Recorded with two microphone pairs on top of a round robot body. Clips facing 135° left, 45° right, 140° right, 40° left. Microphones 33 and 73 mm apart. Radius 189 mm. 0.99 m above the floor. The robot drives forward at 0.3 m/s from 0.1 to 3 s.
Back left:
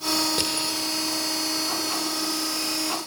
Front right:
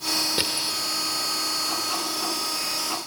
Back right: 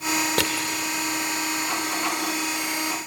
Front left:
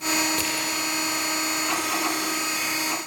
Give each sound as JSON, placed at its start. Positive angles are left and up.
{"t": 0.4, "sound": "crushing", "azimuth_deg": -110, "distance_m": 1.3}